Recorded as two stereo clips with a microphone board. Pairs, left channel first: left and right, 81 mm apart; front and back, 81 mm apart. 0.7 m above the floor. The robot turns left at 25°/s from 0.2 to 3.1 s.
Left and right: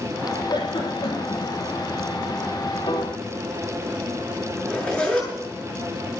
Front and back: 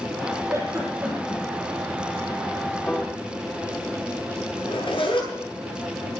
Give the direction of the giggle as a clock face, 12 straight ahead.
8 o'clock.